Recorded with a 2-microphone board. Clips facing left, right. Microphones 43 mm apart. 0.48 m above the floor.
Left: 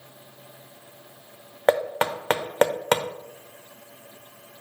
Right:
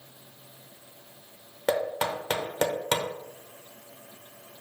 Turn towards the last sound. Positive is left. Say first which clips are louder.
# left 5 dB
turn(degrees=35)  # may be behind; listen again after turning